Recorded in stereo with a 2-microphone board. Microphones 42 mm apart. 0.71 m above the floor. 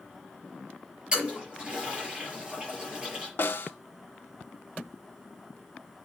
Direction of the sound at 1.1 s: 25° right (ahead or behind).